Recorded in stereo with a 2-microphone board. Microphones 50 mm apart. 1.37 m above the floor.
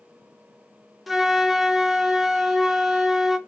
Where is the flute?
5° right (ahead or behind), 0.6 m.